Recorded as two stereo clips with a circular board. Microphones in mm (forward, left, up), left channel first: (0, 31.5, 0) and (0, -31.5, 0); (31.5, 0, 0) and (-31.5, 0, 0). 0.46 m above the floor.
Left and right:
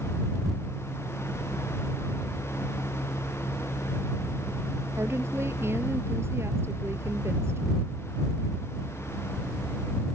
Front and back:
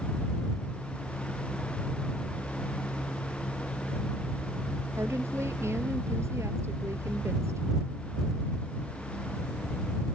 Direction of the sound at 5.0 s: 140° right.